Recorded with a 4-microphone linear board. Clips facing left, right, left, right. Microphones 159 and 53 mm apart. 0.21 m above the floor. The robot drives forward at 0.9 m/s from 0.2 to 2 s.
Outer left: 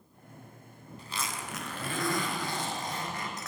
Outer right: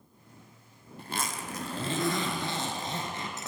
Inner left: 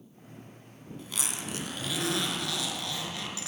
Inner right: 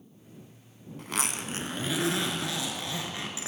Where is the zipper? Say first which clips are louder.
Outer right 3 dB, inner right 5 dB; 55° right (ahead or behind), 0.6 m; by 3.5 s 25° right (ahead or behind), 1.1 m.